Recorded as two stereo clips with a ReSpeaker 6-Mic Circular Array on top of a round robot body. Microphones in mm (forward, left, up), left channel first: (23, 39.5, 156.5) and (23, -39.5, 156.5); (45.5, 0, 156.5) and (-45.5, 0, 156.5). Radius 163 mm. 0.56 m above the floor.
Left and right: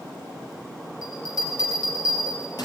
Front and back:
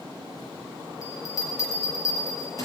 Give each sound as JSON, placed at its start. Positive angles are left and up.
{"t": 1.0, "sound": "a bell", "azimuth_deg": 55, "distance_m": 5.0}